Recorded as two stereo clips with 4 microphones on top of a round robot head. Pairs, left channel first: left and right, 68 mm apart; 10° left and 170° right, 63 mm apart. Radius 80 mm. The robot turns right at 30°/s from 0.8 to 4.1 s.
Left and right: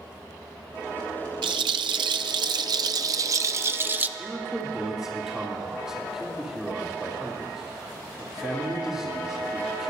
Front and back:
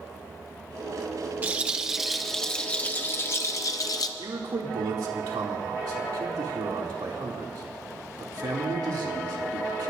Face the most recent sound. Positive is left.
turn(degrees=-170)